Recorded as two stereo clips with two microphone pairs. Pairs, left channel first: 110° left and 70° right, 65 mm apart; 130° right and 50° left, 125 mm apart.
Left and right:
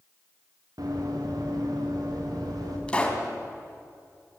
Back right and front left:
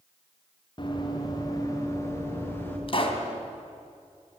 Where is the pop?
175° right, 2.5 m.